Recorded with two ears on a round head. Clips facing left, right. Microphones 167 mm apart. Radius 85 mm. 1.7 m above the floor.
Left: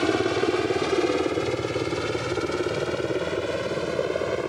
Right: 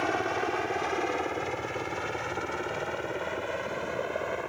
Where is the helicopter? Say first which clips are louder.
Left 7 dB; 45° left (ahead or behind).